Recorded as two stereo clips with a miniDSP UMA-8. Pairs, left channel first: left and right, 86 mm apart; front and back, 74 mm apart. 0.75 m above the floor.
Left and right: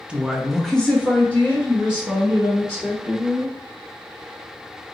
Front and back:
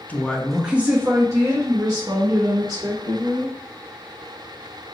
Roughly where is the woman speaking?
Ahead right.